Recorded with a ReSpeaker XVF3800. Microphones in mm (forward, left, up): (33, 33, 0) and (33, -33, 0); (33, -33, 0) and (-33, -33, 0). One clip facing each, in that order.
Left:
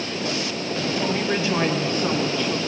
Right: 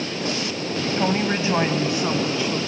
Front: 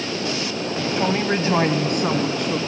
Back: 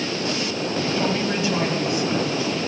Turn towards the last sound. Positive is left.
turn(degrees=-5)